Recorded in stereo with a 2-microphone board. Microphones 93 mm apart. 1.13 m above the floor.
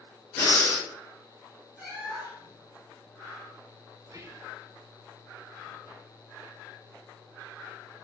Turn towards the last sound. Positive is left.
turn(degrees=-40)  # may be behind; listen again after turning